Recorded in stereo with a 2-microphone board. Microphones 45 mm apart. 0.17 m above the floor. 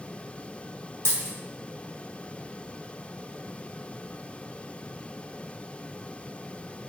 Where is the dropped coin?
70° left (ahead or behind), 1.5 m.